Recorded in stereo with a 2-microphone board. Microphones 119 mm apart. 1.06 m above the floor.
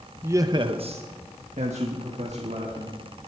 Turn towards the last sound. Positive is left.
turn(degrees=-65)  # may be behind; listen again after turning